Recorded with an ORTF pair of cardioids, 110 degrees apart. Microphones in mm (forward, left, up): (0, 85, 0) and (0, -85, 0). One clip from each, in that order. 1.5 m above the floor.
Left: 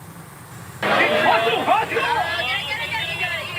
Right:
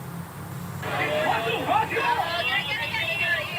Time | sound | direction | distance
0.8 | a shout | 70° left | 0.7 m